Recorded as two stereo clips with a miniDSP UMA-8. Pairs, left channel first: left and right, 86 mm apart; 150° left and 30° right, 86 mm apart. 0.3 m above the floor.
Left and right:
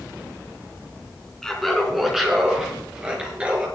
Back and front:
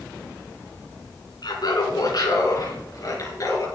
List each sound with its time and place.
1.4 s laughter: 175° left, 3 m; by 3.7 s 165° right, 5.5 m